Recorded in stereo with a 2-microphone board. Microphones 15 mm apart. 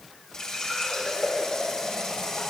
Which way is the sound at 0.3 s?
50° left (ahead or behind).